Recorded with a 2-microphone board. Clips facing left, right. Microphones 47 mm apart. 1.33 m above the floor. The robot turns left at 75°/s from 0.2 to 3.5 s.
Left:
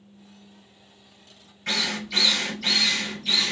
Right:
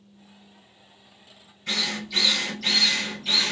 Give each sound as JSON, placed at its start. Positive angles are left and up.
{"t": 1.7, "sound": "a drill", "azimuth_deg": 85, "distance_m": 2.5}